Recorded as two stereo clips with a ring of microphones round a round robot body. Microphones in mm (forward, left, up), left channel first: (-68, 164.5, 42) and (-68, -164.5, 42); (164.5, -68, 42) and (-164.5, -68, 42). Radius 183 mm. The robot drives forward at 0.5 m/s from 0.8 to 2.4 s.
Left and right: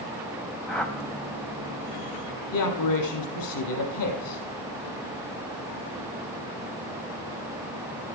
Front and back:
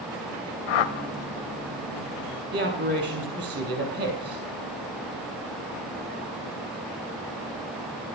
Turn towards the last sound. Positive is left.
turn(degrees=115)